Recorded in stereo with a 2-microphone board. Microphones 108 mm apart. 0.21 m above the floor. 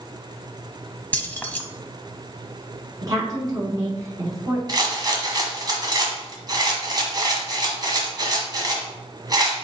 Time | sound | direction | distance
1.1 | keys jangling | 15° left (ahead or behind) | 0.8 m
3.0 | a woman speaking | 35° right (ahead or behind) | 2 m
4.7 | a rattle | 40° right (ahead or behind) | 1.6 m